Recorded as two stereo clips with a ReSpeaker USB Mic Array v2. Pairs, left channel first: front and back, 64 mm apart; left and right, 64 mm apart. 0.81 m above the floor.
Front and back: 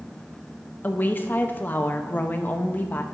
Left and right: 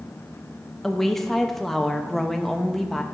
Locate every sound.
0.8 s a woman speaking: 10° left, 0.7 m